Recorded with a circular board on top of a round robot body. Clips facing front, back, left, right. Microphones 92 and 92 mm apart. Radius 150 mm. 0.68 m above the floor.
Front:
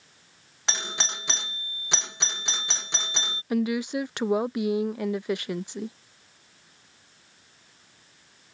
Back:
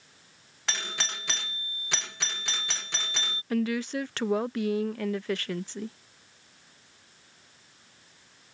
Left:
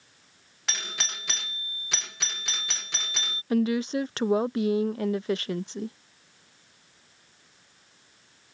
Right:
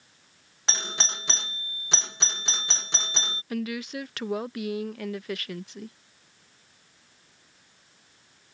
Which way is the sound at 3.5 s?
60° left.